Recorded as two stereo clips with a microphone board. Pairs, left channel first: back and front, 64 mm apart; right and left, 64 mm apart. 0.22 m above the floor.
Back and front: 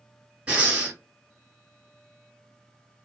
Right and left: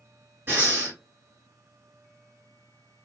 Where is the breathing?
60° left, 1.8 m.